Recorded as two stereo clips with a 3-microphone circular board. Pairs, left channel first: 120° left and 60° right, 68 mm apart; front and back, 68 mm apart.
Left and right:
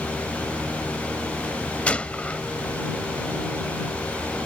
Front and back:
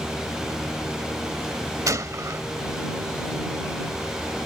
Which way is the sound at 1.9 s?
175° right.